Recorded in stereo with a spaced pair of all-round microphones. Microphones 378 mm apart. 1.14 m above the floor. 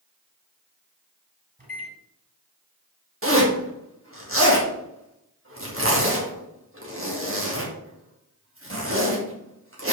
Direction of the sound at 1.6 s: 20° right (ahead or behind).